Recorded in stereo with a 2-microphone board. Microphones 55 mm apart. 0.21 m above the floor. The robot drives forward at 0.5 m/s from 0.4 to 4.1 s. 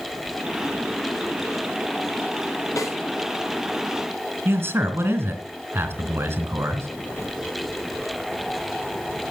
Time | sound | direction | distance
2.8 | a snare drum | 75° left (ahead or behind) | 5.5 m
4.5 | a man speaking | 45° right (ahead or behind) | 2.5 m